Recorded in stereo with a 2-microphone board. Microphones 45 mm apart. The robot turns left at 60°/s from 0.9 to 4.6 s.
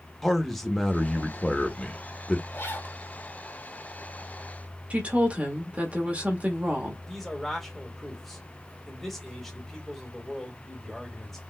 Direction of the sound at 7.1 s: 5° left (ahead or behind).